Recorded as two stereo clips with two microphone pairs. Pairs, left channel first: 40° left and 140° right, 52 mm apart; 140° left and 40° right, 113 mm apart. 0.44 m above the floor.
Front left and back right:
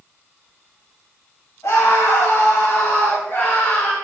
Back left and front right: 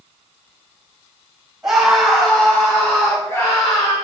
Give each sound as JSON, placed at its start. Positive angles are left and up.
{"t": 1.6, "sound": "a scream", "azimuth_deg": 45, "distance_m": 3.5}